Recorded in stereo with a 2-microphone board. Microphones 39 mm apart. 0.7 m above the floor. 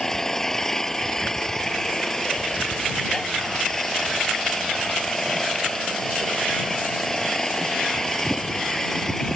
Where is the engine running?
15° left (ahead or behind).